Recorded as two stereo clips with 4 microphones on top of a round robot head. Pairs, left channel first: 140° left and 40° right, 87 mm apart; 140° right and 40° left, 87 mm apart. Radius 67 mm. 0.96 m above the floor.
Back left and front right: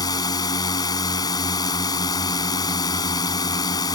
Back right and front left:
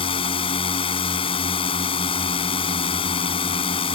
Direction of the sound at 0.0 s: 170° right.